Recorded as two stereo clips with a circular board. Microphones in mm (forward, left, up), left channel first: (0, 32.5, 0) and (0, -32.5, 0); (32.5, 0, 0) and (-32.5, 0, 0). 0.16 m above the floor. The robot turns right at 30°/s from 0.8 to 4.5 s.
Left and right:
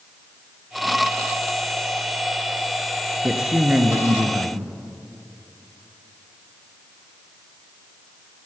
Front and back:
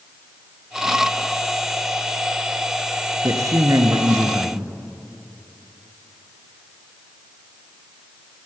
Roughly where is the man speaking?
Behind.